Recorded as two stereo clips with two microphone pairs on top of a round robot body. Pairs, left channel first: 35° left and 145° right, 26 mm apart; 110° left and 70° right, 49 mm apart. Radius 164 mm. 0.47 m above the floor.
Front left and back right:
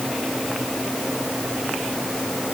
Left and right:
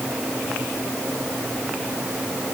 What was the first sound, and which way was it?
Only background noise.